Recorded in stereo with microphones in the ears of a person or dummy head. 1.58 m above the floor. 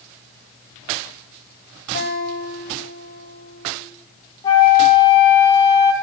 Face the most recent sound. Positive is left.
turn(degrees=20)  # may be behind; listen again after turning